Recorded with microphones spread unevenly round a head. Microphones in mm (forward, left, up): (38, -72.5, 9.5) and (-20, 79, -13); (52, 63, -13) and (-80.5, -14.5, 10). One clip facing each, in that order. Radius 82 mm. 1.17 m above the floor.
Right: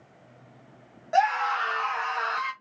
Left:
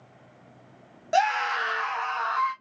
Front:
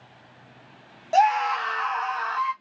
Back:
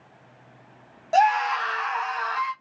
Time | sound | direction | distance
1.1 | a scream | 110° left | 0.8 m